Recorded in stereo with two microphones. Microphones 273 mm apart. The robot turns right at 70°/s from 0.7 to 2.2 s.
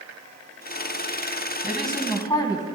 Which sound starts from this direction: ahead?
A woman speaking, at 1.6 s.